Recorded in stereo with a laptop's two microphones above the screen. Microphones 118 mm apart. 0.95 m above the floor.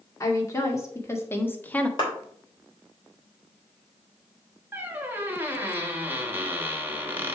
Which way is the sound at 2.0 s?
40° left (ahead or behind).